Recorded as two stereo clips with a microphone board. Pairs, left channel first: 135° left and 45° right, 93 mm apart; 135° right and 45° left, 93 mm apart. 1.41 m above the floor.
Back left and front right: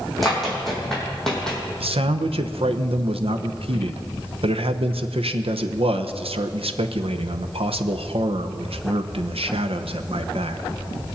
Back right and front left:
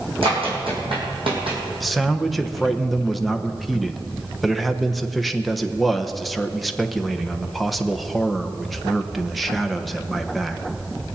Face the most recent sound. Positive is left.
turn(degrees=-45)